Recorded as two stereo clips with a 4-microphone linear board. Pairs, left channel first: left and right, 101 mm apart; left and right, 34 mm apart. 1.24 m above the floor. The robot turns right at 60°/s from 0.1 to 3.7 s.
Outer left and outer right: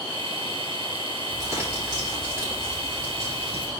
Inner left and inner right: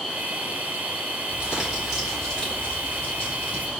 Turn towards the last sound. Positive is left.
turn(degrees=100)